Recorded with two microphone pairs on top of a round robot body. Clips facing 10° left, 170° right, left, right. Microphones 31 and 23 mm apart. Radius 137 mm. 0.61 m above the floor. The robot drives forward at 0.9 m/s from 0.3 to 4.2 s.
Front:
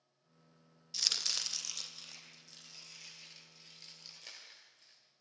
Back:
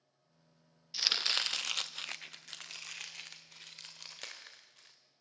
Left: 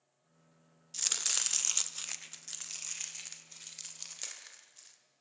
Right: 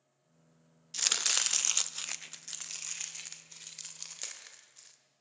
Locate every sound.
0.9 s chopping: 110° right, 0.9 m; by 5.0 s 175° right, 3 m